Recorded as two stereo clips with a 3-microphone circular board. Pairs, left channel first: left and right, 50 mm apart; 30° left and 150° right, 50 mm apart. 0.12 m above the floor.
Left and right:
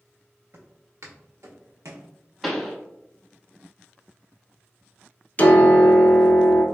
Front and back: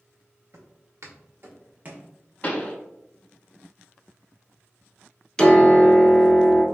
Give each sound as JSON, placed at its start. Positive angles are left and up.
{"t": 0.5, "sound": "footsteps", "azimuth_deg": -125, "distance_m": 1.2}
{"t": 2.4, "sound": "a pop", "azimuth_deg": -5, "distance_m": 0.7}
{"t": 5.4, "sound": "a piano", "azimuth_deg": 90, "distance_m": 0.6}